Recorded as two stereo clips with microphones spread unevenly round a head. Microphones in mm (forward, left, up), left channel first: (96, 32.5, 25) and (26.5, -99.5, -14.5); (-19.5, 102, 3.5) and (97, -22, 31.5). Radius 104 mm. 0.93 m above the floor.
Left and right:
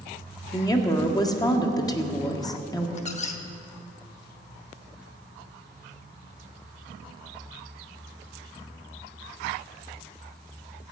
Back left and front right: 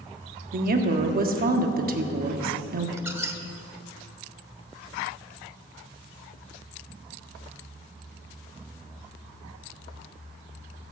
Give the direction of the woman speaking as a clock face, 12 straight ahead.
12 o'clock.